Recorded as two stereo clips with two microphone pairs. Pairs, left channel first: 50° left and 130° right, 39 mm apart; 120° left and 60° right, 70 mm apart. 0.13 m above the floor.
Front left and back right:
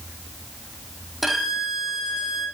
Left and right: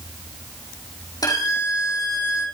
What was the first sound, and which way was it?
A violin, 145° left.